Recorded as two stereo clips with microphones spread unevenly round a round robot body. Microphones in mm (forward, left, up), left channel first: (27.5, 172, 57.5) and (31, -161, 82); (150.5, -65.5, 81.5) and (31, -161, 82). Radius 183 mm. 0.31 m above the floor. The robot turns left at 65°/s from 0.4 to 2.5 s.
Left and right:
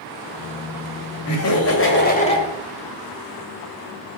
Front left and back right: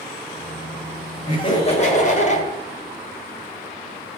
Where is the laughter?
95° left, 1.9 m; by 2.5 s 15° left, 1.9 m.